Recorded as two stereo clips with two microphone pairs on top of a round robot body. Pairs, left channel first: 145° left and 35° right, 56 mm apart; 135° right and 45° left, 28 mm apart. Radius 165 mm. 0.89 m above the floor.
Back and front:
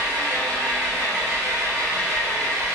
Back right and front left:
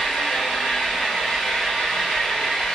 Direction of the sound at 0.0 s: 60° right.